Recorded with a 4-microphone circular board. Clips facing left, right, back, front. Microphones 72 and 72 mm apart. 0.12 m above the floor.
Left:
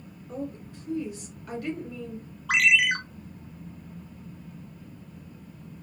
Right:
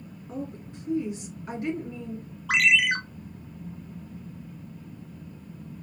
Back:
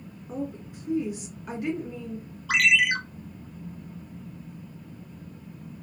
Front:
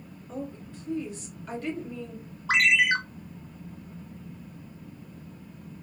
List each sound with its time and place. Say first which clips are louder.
0.3 s a woman speaking: left 1 dB, back 3 dB; 125° right, 1.4 m
2.5 s a ringtone: even, even; straight ahead, 0.9 m